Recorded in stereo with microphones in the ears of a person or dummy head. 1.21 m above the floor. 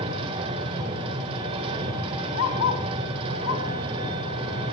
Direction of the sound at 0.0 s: 30° right (ahead or behind).